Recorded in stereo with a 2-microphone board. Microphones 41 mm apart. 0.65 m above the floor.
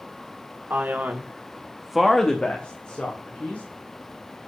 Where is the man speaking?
60° right (ahead or behind), 1.7 m; by 3.6 s 50° left (ahead or behind), 2.5 m.